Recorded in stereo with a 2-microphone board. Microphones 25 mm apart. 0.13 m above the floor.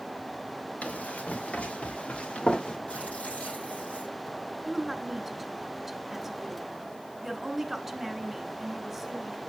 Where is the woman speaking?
15° right (ahead or behind), 1.6 m.